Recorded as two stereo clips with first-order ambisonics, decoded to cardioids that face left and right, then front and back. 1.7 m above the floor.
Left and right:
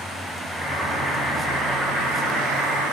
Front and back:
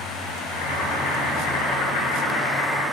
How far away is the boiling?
About 1.9 m.